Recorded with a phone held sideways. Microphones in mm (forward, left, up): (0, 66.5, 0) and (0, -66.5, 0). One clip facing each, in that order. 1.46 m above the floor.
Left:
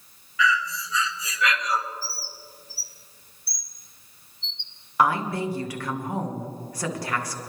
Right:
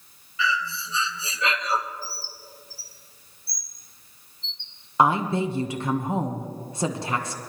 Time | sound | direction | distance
0.4 | breathing | 30° right (ahead or behind) | 0.8 m
2.0 | a bird | 80° left | 1.0 m
5.0 | a woman speaking | 25° right (ahead or behind) | 1.2 m